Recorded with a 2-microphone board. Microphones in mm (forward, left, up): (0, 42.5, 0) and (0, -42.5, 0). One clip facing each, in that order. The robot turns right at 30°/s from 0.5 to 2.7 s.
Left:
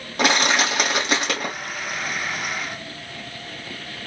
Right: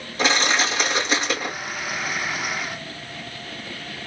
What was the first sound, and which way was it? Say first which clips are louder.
Crushing: left 2 dB; 75° left.